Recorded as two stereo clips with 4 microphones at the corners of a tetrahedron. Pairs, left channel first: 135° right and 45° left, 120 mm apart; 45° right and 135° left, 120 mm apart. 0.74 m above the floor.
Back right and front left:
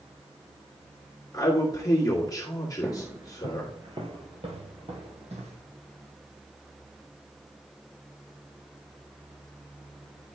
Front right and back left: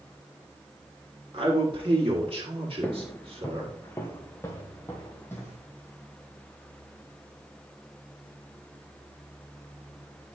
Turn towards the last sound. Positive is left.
turn(degrees=25)